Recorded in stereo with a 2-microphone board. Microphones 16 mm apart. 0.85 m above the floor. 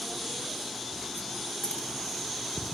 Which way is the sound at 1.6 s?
75° left (ahead or behind).